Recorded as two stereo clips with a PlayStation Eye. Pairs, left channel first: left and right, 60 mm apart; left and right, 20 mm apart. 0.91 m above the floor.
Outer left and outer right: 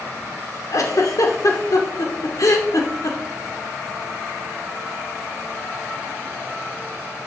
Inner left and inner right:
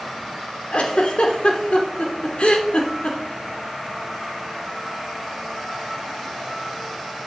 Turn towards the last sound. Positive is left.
turn(degrees=70)  # may be behind; listen again after turning